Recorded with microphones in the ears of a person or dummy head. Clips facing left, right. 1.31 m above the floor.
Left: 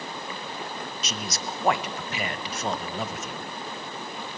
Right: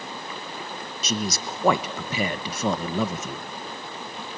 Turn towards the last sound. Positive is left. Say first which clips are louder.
# right 9 dB
turn(degrees=-75)  # may be behind; listen again after turning